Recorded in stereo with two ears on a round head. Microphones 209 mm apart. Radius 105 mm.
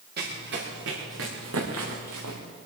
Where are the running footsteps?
45° right (ahead or behind), 5 m; by 2.4 s 80° right, 3.5 m.